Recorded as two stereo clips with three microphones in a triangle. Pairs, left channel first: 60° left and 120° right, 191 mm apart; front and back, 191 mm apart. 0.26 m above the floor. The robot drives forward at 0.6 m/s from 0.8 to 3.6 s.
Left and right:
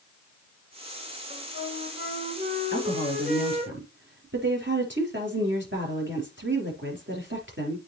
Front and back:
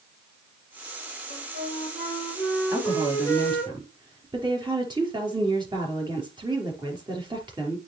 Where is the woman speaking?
105° right, 4 m; by 7.9 s 115° right, 4 m.